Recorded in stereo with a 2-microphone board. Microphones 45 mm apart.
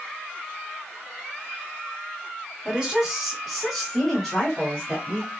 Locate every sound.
2.6 s a woman speaking: 10° right (ahead or behind), 1.6 m; by 5.3 s 15° left (ahead or behind), 1.9 m